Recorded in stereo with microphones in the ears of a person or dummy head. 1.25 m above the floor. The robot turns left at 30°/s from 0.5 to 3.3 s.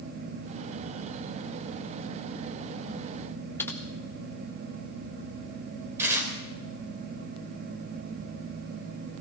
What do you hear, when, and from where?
3.6 s typing on a keyboard: 10° left (ahead or behind), 1.5 m
6.0 s tearing paper: 15° right (ahead or behind), 3.5 m